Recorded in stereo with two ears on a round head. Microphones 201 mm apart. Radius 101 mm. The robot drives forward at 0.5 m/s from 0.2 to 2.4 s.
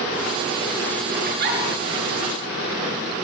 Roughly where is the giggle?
Right.